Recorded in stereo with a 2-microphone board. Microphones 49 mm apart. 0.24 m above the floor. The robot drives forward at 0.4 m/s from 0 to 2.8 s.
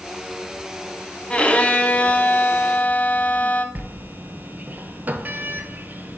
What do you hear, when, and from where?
1.3 s a violin: 25° left (ahead or behind), 0.8 m; by 3.6 s 35° left (ahead or behind), 0.5 m
3.8 s a sliding door: 40° right (ahead or behind), 0.7 m